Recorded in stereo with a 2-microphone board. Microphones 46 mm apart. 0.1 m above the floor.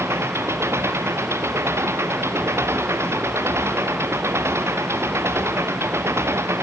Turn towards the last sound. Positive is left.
turn(degrees=-70)  # may be behind; listen again after turning